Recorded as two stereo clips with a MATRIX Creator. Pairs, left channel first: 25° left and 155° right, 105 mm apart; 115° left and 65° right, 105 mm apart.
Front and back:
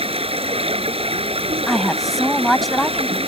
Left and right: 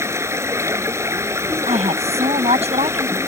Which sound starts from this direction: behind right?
Running water, at 0.0 s.